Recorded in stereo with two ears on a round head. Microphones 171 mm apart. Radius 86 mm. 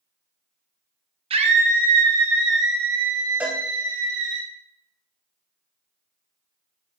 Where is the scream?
30° right (ahead or behind), 1.0 m; by 4.4 s 70° right (ahead or behind), 3.5 m.